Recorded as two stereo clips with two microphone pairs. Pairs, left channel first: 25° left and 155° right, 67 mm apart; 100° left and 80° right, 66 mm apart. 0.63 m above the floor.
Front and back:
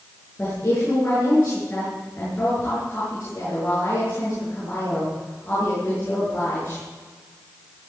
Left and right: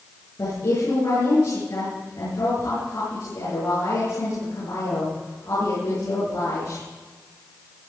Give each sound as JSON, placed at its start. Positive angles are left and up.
{"t": 0.4, "sound": "a woman speaking", "azimuth_deg": 85, "distance_m": 8.5}